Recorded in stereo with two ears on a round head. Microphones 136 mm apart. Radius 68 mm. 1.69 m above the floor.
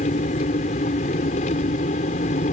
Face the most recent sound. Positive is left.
turn(degrees=50)  # may be behind; listen again after turning